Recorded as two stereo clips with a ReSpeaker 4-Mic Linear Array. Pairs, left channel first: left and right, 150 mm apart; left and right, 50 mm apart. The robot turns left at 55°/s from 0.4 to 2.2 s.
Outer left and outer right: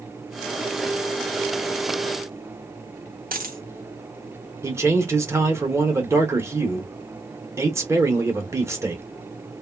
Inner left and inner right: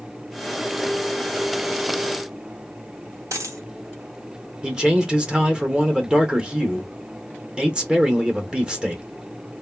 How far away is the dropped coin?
About 0.7 m.